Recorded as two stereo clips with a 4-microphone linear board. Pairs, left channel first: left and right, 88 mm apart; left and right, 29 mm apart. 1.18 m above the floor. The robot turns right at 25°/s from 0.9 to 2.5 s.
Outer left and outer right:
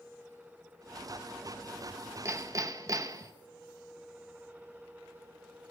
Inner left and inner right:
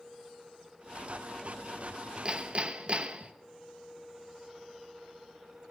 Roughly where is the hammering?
Right.